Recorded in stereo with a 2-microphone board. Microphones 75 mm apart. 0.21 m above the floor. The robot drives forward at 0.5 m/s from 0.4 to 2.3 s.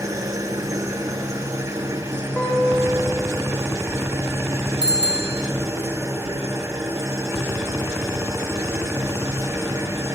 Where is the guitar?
20° left (ahead or behind), 7 m.